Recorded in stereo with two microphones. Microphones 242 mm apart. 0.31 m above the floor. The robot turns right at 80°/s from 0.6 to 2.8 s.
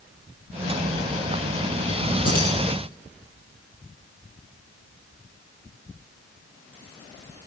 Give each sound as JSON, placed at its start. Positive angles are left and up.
{"t": 2.2, "sound": "keys jangling", "side_deg": 75, "distance_m": 7.5}